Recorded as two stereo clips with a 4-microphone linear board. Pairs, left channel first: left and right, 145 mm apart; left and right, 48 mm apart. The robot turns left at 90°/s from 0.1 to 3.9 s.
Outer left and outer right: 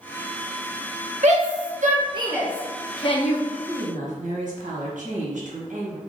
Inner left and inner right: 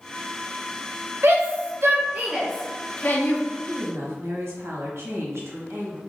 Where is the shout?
55° right (ahead or behind), 0.9 m; by 3.4 s 65° left (ahead or behind), 0.9 m.